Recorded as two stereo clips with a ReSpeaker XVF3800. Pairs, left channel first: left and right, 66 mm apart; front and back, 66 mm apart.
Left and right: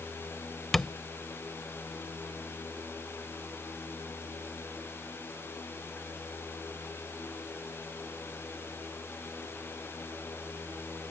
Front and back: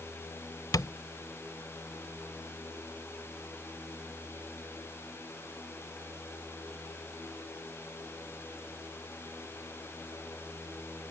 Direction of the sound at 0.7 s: 5° left.